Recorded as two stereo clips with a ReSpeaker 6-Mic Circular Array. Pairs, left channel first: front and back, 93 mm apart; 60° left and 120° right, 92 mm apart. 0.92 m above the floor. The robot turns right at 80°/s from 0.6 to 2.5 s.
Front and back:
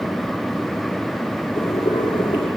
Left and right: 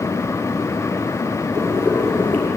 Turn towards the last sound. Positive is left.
turn(degrees=5)